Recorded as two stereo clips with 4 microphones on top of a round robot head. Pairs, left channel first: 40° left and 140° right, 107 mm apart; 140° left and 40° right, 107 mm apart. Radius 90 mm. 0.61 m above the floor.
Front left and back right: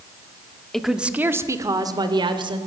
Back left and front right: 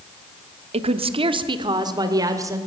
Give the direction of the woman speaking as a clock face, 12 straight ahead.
2 o'clock.